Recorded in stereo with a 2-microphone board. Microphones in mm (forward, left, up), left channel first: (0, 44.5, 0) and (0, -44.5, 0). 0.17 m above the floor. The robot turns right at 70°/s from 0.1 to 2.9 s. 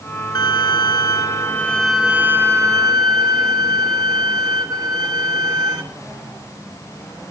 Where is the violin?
70° left, 2.5 m; by 5.8 s 110° right, 2.5 m.